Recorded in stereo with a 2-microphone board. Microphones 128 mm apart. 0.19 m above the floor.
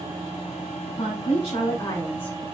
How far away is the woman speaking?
About 3 m.